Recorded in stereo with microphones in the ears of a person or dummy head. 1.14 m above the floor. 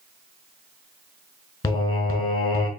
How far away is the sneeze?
I don't hear a sneeze.